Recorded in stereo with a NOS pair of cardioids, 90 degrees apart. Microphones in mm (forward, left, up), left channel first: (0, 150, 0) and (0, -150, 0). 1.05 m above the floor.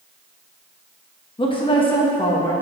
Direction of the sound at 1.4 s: 20° left.